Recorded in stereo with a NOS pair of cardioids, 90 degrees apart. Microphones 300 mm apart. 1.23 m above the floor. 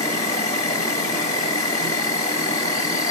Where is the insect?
25° left, 1.7 m.